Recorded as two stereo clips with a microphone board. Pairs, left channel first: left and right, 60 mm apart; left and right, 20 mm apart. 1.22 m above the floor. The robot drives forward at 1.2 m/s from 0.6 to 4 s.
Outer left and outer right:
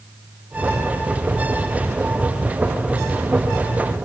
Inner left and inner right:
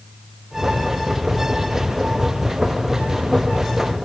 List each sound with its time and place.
Only background noise.